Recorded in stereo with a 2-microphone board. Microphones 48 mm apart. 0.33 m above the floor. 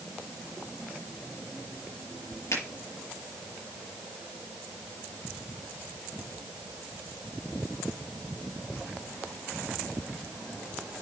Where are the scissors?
I don't hear scissors.